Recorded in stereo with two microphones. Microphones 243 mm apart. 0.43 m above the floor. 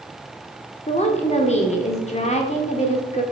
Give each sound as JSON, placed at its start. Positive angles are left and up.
{"t": 0.9, "sound": "a woman speaking", "side_deg": 25, "distance_m": 0.8}